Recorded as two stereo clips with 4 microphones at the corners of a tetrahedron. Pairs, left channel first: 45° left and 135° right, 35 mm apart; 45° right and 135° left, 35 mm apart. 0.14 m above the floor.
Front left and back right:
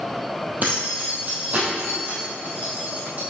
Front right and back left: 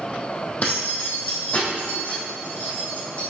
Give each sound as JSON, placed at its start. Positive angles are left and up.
{"t": 0.6, "sound": "keys jangling", "azimuth_deg": -95, "distance_m": 3.0}